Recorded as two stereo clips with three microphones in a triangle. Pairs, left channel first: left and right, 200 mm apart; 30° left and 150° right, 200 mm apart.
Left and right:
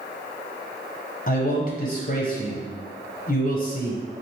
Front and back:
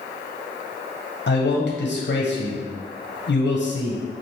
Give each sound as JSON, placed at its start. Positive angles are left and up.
{"t": 1.3, "sound": "a man speaking", "azimuth_deg": 45, "distance_m": 0.6}